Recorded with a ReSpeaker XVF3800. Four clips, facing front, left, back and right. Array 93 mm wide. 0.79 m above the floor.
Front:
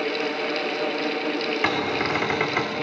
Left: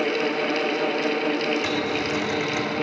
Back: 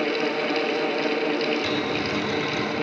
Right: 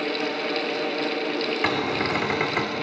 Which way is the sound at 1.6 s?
35° right.